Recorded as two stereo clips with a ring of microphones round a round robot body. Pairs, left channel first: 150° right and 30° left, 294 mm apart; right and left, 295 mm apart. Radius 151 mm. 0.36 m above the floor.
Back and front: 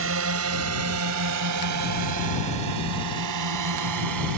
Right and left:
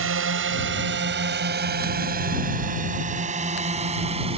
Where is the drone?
60° left; by 4.4 s 20° left.